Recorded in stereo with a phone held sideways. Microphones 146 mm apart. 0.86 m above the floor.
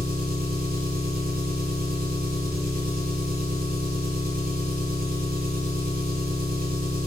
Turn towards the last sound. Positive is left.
turn(degrees=-85)